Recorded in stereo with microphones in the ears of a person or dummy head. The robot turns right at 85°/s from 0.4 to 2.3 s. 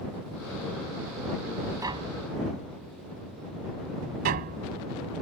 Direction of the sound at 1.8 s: 15° right (ahead or behind).